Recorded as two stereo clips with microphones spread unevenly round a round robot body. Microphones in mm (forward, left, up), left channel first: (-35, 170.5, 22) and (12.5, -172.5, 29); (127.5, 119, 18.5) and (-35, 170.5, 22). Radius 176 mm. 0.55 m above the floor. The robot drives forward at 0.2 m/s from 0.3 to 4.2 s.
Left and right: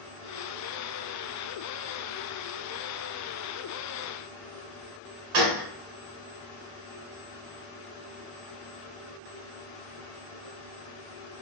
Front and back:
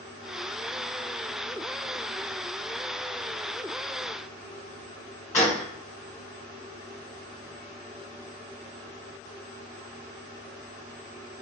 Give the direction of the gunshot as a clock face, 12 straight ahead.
3 o'clock.